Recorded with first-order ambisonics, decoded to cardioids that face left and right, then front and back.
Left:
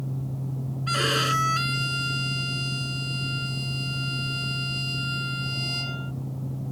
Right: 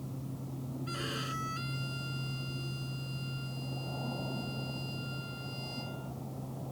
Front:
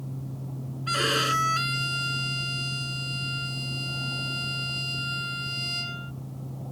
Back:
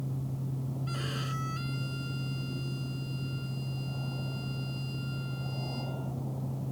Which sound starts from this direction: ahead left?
A violin, at 0.9 s.